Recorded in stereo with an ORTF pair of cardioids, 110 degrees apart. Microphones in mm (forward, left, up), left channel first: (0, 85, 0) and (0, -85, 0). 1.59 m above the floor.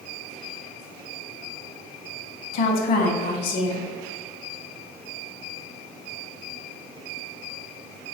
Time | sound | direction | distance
2.5 | a woman speaking | 60° left | 0.8 m